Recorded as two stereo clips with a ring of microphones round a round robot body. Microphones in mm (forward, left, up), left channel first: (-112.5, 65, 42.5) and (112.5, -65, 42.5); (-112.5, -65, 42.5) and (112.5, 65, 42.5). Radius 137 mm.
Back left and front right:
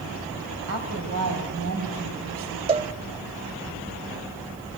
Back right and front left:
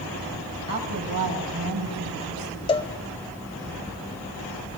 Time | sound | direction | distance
0.7 | a woman speaking | 5° right | 3.5 m
2.7 | a cowbell | 90° right | 0.5 m